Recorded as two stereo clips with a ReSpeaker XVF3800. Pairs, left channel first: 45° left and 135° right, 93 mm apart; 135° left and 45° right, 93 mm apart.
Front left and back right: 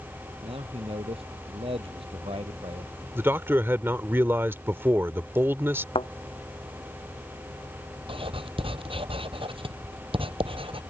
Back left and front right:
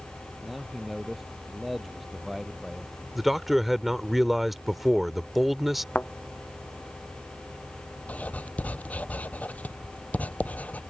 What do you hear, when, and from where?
0.4 s a man speaking: 135° right
3.1 s a man speaking: 130° right
6.0 s a thud: 60° left
8.1 s writing: 150° right